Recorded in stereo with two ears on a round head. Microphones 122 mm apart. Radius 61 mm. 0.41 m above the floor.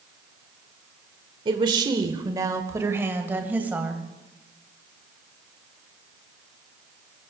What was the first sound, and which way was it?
A woman speaking, 35° right (ahead or behind).